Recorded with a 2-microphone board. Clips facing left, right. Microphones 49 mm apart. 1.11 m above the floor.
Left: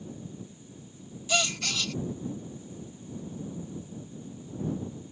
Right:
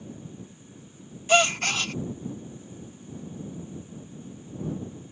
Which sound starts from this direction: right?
A gasp, at 1.3 s.